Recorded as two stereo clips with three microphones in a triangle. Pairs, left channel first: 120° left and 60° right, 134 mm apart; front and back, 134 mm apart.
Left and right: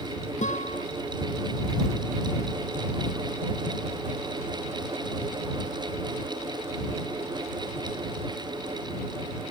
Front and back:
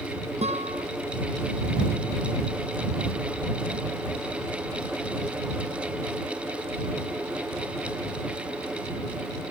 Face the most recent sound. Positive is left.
turn(degrees=145)